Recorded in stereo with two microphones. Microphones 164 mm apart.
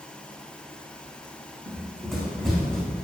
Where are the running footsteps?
Centre (ahead or behind), 4.5 m; by 2.8 s 5° left (ahead or behind), 3.5 m.